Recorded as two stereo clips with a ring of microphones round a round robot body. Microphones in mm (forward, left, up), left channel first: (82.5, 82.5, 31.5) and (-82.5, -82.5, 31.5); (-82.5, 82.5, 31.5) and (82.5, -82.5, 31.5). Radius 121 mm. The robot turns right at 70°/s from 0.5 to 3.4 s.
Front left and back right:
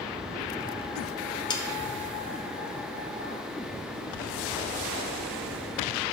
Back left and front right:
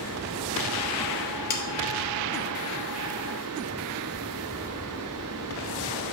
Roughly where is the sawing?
Left.